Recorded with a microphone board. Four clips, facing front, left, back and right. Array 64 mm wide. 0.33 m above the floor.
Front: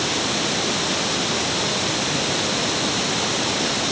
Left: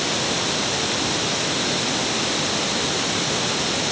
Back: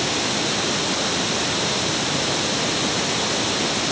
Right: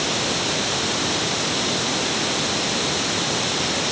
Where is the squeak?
No squeak in this recording.